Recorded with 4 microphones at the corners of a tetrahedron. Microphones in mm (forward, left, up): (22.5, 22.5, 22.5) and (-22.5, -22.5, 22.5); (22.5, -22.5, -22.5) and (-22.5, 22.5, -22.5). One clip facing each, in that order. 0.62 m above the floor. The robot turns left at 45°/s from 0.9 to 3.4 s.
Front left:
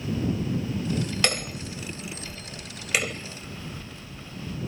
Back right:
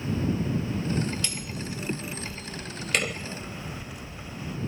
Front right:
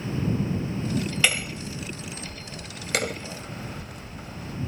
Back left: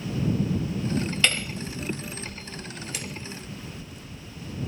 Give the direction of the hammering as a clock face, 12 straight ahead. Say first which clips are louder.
Front left 6 dB, even; 11 o'clock.